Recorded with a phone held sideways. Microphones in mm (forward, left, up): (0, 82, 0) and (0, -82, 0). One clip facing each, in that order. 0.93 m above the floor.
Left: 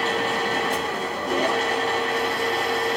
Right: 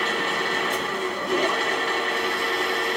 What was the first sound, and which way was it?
A machine running, 40° left (ahead or behind).